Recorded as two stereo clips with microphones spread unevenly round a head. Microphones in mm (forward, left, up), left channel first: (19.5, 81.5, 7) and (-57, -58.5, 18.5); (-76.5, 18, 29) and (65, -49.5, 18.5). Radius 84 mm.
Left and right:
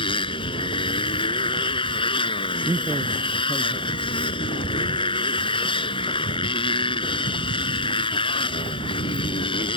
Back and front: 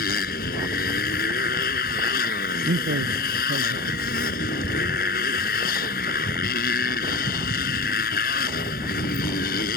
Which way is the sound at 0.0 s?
120° left.